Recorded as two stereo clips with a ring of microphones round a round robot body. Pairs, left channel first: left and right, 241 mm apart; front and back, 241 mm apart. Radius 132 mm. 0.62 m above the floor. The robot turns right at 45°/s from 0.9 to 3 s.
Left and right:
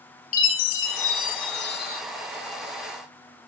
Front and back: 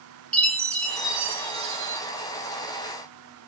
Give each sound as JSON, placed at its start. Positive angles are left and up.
{"t": 0.3, "sound": "a chime", "azimuth_deg": 85, "distance_m": 1.3}